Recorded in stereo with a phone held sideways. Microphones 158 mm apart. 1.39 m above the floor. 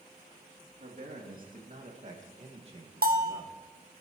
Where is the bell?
80° right, 1.0 m.